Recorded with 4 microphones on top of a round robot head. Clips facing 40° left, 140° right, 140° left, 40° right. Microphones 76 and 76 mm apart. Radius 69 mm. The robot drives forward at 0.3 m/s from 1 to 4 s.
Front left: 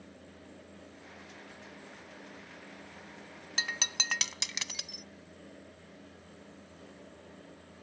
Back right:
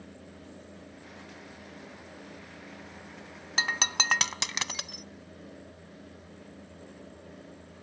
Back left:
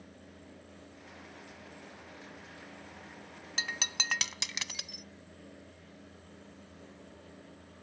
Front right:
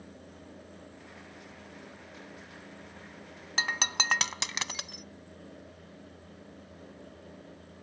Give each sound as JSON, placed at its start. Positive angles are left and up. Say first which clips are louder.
{"t": 3.6, "sound": "breaking glass", "louder": "back right 7 dB, front right 7 dB", "azimuth_deg": -90}